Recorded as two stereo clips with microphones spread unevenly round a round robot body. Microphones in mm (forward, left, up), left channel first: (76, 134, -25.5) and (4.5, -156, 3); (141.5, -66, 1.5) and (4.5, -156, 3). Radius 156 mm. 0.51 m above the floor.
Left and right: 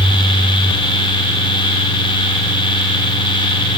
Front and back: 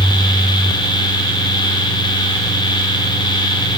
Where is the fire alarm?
No fire alarm in this recording.